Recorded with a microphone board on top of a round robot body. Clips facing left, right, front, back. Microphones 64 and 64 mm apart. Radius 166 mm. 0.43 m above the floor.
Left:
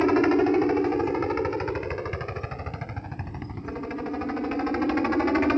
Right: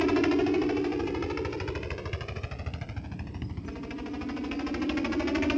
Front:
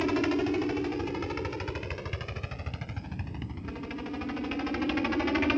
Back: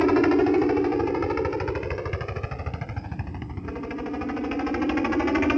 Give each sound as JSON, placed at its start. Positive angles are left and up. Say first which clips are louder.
{"t": 0.0, "sound": "a helicopter", "louder": "left 4 dB, back 8 dB", "azimuth_deg": 135}